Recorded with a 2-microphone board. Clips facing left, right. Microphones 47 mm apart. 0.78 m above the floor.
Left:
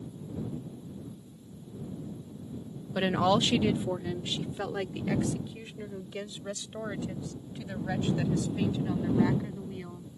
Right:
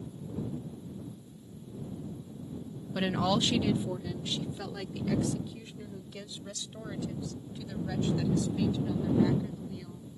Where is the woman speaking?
15° left (ahead or behind); by 10.1 s 30° left (ahead or behind).